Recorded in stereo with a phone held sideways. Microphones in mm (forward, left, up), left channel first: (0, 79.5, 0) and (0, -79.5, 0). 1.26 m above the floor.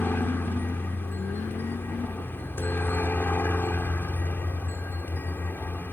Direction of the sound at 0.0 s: 10° left (ahead or behind).